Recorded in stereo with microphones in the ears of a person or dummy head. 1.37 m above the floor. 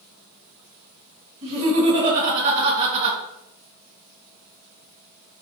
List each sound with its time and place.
1.4 s laughter: 35° right (ahead or behind), 1.5 m